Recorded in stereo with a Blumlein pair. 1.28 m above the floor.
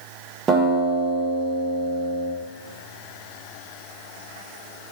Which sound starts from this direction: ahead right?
A guitar, at 0.5 s.